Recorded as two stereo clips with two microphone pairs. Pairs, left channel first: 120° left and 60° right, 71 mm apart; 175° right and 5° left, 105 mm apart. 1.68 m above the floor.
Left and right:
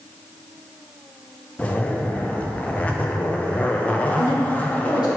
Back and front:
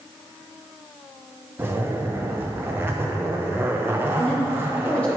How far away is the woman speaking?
About 1.8 m.